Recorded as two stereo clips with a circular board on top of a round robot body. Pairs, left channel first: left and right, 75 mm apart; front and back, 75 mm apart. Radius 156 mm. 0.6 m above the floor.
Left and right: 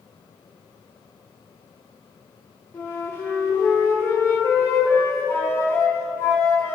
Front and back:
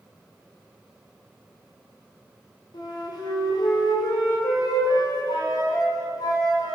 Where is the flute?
30° left, 1.4 m.